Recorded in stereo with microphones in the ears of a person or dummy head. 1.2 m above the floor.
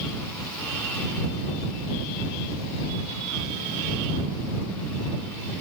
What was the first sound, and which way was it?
Only background noise.